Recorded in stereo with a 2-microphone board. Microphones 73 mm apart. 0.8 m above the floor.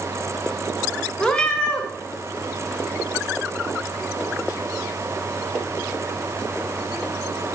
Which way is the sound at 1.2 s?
10° left (ahead or behind).